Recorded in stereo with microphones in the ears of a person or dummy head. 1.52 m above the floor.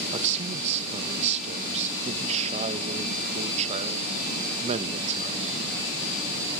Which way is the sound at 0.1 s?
40° right (ahead or behind).